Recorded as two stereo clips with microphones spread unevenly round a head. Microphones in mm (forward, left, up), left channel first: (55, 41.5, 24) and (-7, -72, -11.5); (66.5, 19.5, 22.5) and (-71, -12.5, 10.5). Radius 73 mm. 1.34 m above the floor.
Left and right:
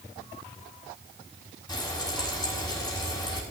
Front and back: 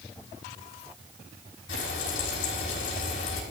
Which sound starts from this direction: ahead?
Frying, at 1.7 s.